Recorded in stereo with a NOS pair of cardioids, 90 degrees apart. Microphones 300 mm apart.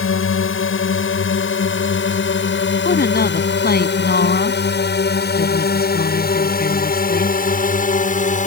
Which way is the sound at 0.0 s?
45° left.